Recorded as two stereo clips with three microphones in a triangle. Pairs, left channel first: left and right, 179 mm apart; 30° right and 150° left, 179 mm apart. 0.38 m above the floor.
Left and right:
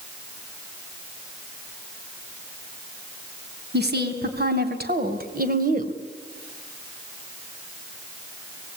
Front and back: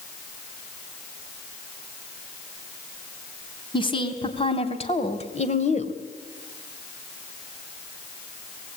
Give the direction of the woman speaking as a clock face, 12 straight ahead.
3 o'clock.